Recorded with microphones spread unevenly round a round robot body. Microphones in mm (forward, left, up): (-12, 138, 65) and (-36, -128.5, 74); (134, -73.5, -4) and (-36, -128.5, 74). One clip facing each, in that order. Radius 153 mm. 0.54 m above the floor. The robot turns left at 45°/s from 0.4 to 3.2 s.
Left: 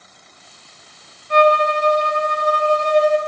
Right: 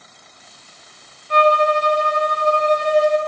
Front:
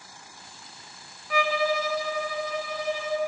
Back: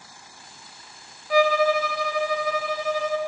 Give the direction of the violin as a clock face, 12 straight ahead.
4 o'clock.